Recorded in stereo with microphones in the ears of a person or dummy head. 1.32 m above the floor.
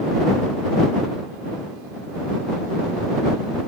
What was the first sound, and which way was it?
Only background noise.